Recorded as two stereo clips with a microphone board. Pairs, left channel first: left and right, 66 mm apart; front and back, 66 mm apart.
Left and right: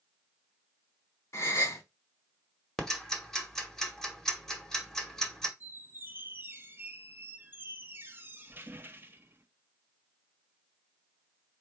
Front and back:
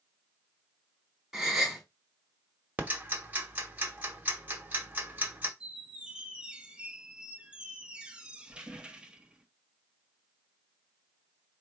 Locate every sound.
1.3 s a gasp: 95° left, 1.2 m
2.8 s ticking: 165° left, 1.0 m
5.6 s a squeak: 115° right, 0.6 m